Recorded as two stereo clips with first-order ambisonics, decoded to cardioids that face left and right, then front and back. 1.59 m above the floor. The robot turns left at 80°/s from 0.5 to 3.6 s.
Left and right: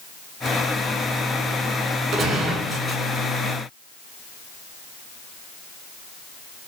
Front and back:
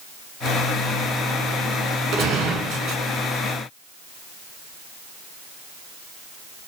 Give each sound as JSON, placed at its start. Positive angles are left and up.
{"t": 2.1, "sound": "a gunshot", "azimuth_deg": -130, "distance_m": 1.2}